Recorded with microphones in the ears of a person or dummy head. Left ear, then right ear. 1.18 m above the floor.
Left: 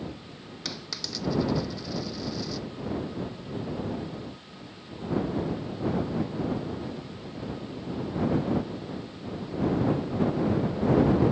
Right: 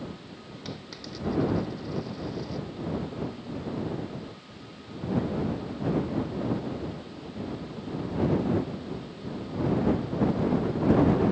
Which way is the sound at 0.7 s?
35° left (ahead or behind).